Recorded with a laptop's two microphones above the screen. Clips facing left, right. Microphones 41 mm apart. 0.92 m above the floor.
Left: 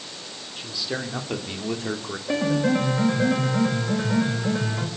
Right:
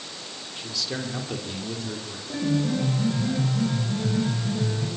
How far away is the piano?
About 5 m.